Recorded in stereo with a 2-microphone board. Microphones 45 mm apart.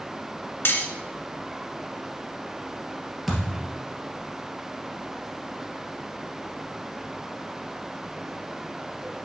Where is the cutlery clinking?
55° left (ahead or behind), 1.0 m.